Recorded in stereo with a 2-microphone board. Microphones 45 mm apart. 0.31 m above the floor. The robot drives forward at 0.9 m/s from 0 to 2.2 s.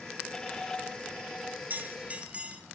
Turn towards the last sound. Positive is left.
turn(degrees=-30)  # may be behind; listen again after turning